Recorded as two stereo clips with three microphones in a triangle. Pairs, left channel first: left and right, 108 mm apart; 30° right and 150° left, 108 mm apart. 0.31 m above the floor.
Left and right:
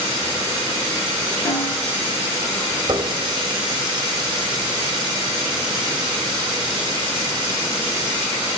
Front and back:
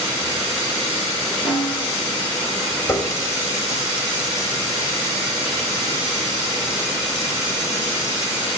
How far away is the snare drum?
About 4 m.